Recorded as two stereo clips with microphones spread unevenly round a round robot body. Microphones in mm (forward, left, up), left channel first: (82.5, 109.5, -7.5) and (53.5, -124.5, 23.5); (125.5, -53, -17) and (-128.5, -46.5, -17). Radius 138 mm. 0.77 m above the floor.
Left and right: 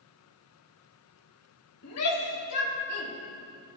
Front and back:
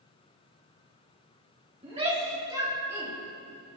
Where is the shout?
110° left, 3 m; by 3.1 s 95° left, 4 m.